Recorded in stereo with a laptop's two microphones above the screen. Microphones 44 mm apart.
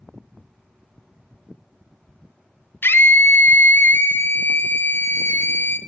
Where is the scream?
55° left (ahead or behind), 1.0 m.